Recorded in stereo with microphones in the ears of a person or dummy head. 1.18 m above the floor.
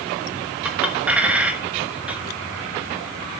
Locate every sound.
0.7 s a clink: 10° right (ahead or behind), 1.2 m